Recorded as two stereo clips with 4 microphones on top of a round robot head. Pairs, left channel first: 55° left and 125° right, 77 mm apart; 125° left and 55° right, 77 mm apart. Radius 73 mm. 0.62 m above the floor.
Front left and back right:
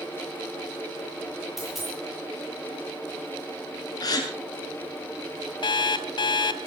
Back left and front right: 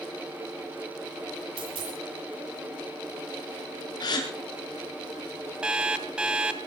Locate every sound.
1.6 s a dropped coin: 40° right, 10 m
4.0 s a gasp: 90° left, 6.5 m
5.6 s an alarm clock: 25° left, 1.4 m